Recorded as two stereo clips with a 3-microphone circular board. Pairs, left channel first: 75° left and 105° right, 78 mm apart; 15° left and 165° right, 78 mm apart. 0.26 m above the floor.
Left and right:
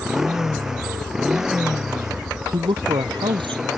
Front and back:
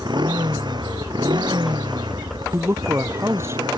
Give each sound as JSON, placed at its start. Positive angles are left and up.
{"t": 0.0, "sound": "a motorcycle", "azimuth_deg": 170}
{"t": 2.5, "sound": "a man speaking", "azimuth_deg": -110}